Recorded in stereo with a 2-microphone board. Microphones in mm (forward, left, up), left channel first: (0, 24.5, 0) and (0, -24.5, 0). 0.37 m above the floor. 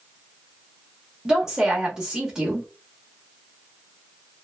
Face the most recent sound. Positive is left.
turn(degrees=-15)  # may be behind; listen again after turning